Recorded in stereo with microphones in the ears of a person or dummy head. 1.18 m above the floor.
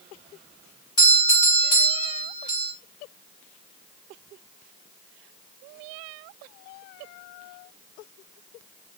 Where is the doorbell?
15° left (ahead or behind), 1.3 m.